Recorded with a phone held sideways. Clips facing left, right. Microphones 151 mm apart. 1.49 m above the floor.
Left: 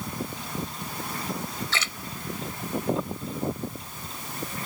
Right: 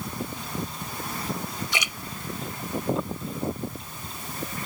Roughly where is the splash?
Centre.